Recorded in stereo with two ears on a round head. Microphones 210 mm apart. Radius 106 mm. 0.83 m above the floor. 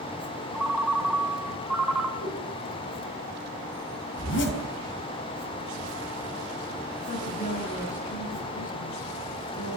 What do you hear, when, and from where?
0.5 s a ringtone: centre (ahead or behind), 2.5 m
2.2 s a whoosh: 35° left (ahead or behind), 8.5 m
4.2 s a zipper: 55° left (ahead or behind), 4.5 m
7.1 s a woman speaking: 35° left (ahead or behind), 9 m